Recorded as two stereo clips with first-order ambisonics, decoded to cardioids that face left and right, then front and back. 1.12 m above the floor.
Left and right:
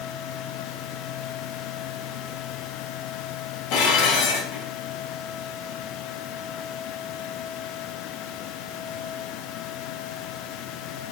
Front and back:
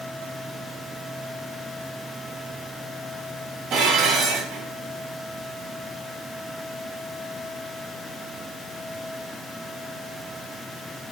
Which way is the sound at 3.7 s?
120° left.